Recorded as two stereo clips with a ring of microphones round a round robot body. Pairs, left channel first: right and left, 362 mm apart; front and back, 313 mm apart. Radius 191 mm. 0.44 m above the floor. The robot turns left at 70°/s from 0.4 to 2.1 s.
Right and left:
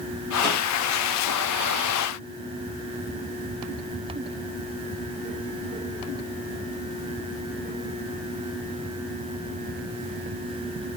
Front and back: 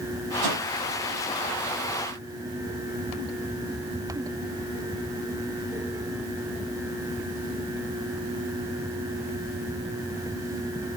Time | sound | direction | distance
0.4 | a whoosh | 170° left | 5.5 m